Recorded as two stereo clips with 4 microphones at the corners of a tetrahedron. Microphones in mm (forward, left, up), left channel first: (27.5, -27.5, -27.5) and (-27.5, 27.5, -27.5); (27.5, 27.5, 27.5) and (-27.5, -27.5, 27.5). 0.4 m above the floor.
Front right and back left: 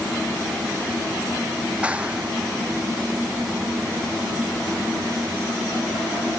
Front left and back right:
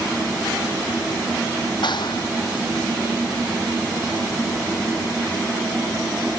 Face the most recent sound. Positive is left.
turn(degrees=60)